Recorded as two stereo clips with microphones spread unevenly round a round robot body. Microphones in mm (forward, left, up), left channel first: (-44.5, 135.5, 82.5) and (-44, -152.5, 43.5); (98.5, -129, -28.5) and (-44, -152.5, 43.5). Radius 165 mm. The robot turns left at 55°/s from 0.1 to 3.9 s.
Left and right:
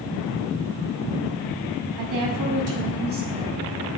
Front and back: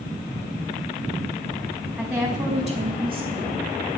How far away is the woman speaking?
About 5.5 m.